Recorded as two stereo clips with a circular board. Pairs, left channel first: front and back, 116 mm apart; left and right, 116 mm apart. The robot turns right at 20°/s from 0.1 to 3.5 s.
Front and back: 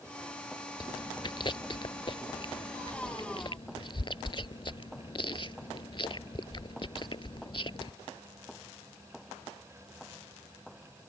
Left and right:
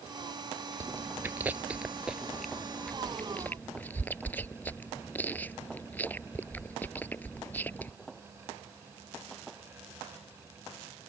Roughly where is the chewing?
Ahead right.